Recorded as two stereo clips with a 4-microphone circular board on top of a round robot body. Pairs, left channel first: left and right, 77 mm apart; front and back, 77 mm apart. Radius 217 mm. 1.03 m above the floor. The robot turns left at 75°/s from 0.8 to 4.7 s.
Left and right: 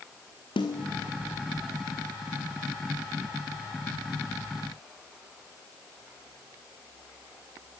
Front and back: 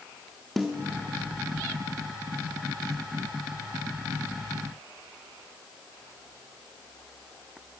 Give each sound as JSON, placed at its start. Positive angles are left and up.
{"t": 0.6, "sound": "a snare drum", "azimuth_deg": 90, "distance_m": 0.8}